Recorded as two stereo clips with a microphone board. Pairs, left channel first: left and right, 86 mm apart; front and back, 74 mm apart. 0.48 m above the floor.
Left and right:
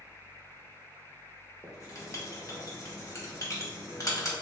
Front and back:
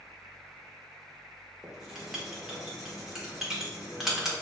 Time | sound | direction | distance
1.6 | writing | 100° left | 1.0 m